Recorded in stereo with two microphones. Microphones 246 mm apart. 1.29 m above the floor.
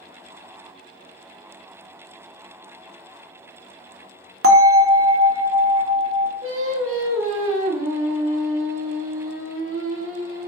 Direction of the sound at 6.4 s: 55° right (ahead or behind).